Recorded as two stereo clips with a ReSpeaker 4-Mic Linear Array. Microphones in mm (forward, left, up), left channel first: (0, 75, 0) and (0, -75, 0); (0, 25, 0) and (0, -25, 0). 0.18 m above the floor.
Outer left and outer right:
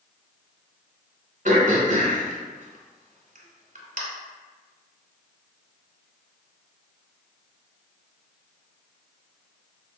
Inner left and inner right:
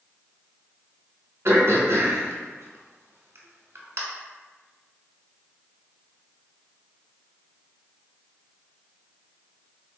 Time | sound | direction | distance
1.4 | throat clearing | 60° right (ahead or behind) | 0.7 m